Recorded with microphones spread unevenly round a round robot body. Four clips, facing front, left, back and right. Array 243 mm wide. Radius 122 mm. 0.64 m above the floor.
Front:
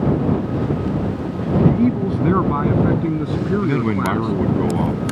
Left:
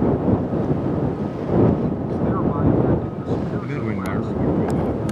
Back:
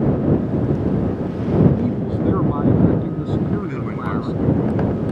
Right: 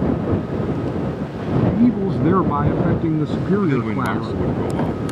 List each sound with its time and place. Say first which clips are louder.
1.7 s a man speaking: right 4 dB, front 3 dB; 60° right; by 4.6 s 65° right
3.6 s a man speaking: right 6 dB, front 6 dB; 10° right